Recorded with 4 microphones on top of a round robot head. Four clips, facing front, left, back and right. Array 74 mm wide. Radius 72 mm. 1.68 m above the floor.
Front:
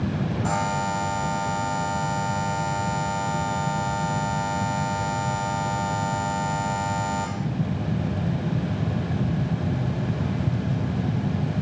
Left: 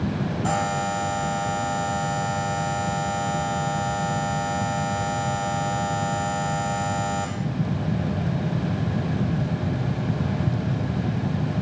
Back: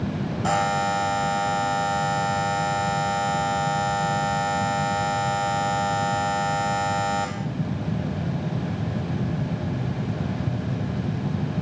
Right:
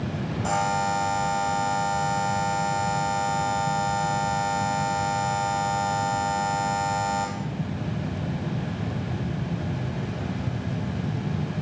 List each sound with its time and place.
0.4 s a buzzer: 165° left, 1.6 m